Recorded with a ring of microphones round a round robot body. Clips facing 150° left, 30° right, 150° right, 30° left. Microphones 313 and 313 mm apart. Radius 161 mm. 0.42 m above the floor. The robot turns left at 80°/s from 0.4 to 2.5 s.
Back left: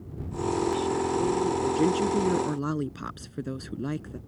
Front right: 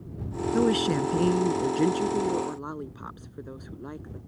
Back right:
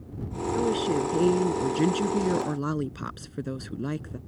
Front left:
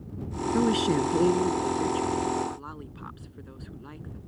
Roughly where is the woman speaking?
Ahead.